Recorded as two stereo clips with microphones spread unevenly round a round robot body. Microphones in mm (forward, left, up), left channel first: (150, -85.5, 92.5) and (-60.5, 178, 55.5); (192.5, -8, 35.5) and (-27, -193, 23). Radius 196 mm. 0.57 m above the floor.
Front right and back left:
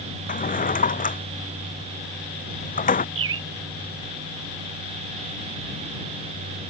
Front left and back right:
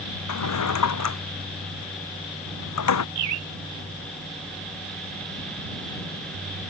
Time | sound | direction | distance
0.3 | a drawer | 15° left | ?
3.1 | a bird | straight behind | ?